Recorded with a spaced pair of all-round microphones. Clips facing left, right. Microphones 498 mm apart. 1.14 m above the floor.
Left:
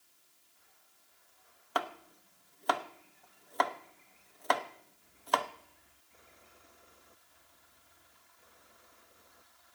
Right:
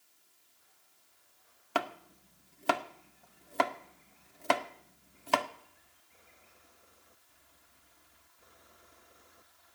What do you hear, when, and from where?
1.8 s chopping: 45° right (ahead or behind), 0.7 m